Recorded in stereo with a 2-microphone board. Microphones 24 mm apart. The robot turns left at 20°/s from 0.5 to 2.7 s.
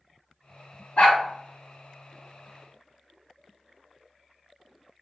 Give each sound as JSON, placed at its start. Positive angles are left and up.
{"t": 1.0, "sound": "a dog barking", "side_deg": 85, "distance_m": 2.0}